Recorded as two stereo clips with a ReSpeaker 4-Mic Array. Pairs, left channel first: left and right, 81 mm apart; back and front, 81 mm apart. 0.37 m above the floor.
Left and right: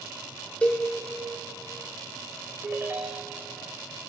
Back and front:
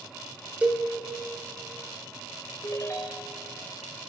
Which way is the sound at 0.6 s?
45° left.